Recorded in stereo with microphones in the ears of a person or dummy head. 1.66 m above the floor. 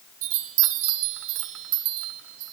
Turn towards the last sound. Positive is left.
turn(degrees=-75)  # may be behind; listen again after turning